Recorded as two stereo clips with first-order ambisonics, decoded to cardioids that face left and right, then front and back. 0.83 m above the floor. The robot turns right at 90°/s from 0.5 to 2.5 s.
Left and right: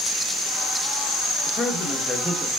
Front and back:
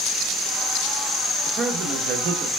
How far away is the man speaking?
About 0.7 m.